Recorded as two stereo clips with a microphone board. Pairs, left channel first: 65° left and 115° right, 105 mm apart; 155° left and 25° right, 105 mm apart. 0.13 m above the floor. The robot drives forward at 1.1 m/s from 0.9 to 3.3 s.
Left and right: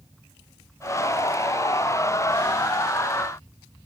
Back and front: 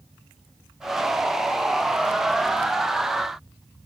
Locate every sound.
Only background noise.